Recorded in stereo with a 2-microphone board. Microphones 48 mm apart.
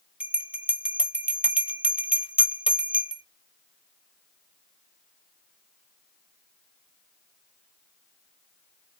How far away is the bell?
About 0.9 m.